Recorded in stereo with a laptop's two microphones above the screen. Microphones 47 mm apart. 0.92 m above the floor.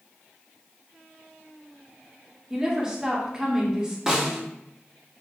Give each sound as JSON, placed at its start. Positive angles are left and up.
{"t": 2.5, "sound": "a woman speaking", "side_deg": -15, "distance_m": 1.8}
{"t": 4.1, "sound": "a snare drum", "side_deg": -10, "distance_m": 1.7}